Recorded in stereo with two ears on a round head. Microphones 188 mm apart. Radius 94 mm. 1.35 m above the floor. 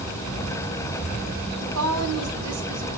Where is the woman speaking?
80° right, 9 m.